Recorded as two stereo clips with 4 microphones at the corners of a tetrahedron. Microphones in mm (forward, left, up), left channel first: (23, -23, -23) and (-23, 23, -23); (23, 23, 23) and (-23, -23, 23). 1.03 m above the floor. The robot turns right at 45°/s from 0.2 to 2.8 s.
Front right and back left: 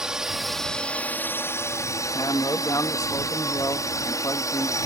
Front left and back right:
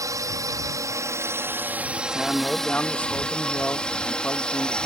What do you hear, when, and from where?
0.0 s a drone: 145° right; by 4.9 s 30° right
2.1 s a man speaking: 50° right; by 4.8 s 20° right